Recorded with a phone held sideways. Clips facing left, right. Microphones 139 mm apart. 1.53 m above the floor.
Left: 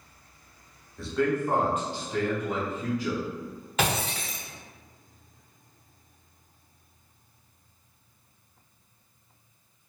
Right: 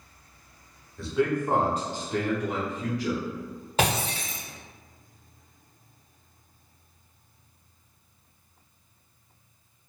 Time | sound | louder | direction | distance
1.0 | a man speaking | right 1 dB | centre (ahead or behind) | 0.9 m
3.8 | breaking glass | right 2 dB | 35° right (ahead or behind) | 1.4 m